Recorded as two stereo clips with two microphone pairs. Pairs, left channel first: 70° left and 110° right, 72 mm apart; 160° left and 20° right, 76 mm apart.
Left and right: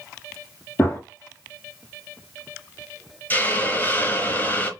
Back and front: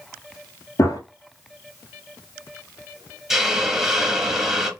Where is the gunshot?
125° left, 1.6 m.